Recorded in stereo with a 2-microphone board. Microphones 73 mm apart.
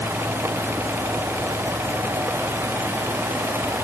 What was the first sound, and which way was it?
Only background noise.